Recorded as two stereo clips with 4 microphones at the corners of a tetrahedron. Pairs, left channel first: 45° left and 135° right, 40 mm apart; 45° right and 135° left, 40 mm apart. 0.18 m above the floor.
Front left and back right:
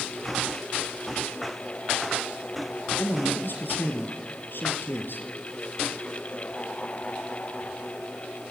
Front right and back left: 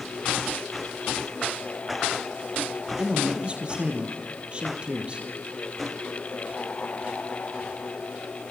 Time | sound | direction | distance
3.0 | a man speaking | 75° left | 4.5 m